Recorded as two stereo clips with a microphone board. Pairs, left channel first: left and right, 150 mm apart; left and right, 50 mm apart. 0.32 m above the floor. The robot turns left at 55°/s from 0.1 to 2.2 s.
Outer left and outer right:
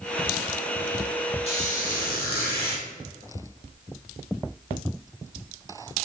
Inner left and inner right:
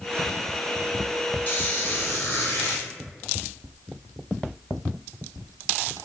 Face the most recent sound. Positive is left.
turn(degrees=95)